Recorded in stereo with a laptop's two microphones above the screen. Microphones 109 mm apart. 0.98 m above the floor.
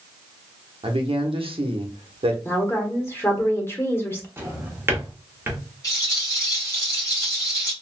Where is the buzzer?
I don't hear a buzzer.